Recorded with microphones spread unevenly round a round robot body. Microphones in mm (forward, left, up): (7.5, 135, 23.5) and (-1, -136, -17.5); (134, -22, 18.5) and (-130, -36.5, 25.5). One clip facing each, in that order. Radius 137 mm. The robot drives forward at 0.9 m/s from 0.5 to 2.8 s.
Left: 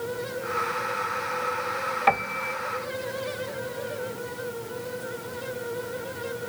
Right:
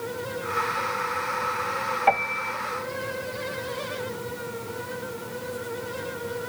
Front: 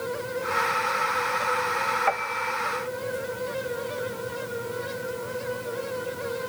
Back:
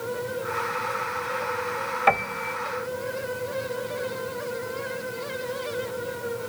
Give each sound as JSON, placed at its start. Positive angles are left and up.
{"t": 2.1, "sound": "a piano", "azimuth_deg": 150}